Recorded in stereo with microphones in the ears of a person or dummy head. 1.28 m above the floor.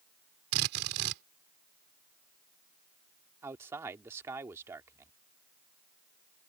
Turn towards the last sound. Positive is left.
turn(degrees=-15)  # may be behind; listen again after turning